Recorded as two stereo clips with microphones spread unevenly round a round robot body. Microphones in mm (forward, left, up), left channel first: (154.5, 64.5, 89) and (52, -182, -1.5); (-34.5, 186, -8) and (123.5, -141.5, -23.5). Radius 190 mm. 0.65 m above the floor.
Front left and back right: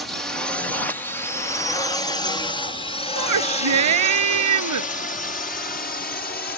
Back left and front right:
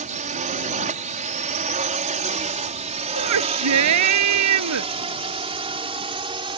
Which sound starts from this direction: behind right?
A shout, at 3.1 s.